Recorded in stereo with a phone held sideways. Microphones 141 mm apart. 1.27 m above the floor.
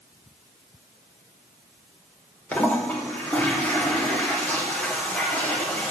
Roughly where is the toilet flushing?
Centre.